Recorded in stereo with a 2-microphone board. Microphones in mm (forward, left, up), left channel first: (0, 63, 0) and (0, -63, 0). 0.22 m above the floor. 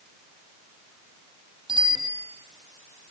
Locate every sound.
1.7 s a bicycle bell: 40° right (ahead or behind), 5 m